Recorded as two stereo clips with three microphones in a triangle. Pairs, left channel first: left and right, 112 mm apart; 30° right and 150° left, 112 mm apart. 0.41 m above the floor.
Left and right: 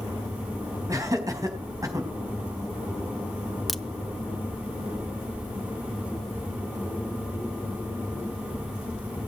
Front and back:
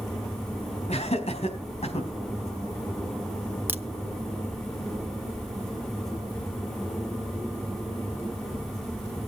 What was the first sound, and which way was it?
Laughter, 30° right.